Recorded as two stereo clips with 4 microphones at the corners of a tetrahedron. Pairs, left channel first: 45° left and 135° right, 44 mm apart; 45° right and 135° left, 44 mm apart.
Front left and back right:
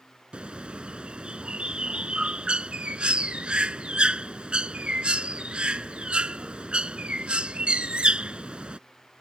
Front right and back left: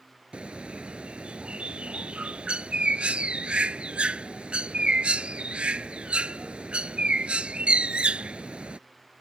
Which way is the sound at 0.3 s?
Straight behind.